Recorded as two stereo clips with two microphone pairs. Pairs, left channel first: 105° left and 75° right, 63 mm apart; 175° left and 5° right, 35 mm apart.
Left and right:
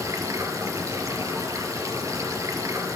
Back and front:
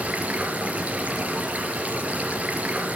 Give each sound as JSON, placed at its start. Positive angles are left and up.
{"t": 0.0, "sound": "running water", "azimuth_deg": -50, "distance_m": 3.5}